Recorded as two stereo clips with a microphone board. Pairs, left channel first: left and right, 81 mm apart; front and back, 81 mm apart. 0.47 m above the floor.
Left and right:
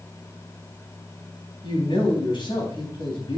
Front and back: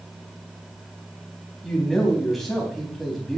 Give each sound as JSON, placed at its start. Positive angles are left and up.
{"t": 1.6, "sound": "a man speaking", "azimuth_deg": 90, "distance_m": 4.0}